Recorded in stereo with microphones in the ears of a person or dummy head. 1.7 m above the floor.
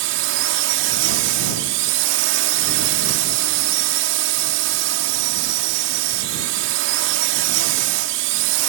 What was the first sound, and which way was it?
A drone, 75° right (ahead or behind).